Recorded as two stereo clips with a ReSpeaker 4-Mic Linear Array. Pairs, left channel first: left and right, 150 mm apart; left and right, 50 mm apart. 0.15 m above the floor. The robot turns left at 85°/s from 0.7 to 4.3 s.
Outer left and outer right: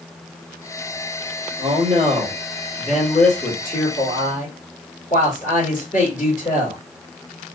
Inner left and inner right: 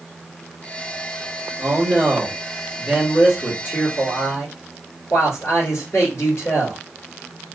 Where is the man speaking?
60° right, 3.5 m; by 6.8 s 65° left, 3.5 m.